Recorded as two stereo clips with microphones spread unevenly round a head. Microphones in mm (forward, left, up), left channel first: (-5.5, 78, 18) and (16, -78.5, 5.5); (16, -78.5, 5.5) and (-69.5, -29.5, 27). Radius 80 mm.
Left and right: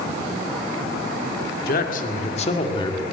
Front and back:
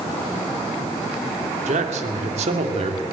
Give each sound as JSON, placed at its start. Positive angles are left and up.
{"t": 1.7, "sound": "a man speaking", "azimuth_deg": 135, "distance_m": 2.0}